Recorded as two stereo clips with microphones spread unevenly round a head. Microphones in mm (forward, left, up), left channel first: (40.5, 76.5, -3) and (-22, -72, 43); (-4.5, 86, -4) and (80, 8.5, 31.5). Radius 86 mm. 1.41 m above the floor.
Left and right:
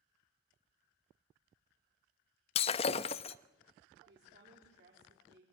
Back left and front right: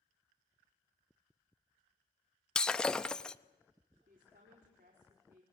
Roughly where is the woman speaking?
Right.